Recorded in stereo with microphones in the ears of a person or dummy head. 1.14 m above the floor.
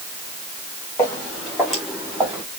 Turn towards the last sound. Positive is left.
turn(degrees=-15)  # may be behind; listen again after turning